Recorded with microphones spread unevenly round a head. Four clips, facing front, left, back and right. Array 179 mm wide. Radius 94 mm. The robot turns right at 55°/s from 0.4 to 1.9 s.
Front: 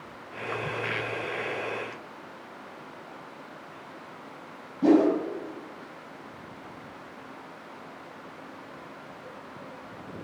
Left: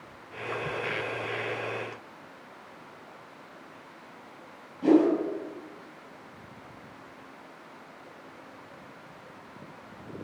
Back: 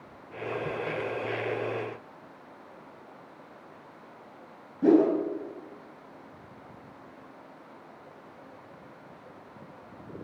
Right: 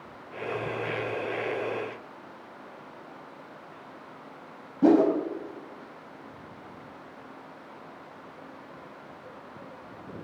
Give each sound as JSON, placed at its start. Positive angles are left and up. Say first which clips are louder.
{"t": 4.8, "sound": "a whoosh", "louder": "right 1 dB, front 1 dB", "azimuth_deg": -90, "distance_m": 4.5}